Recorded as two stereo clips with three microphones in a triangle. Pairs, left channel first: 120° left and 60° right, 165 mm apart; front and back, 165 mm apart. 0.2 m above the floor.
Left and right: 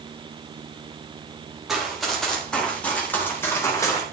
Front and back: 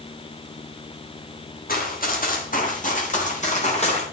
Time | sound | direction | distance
1.7 | running footsteps | 30° left | 5 m